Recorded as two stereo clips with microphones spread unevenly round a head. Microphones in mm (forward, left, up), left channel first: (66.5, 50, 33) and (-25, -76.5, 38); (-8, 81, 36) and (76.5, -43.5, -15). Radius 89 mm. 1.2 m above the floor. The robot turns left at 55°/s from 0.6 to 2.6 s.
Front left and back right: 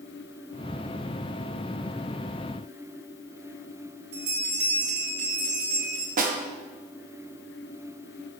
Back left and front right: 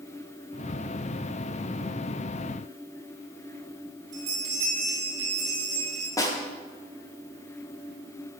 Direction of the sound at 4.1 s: 120° right.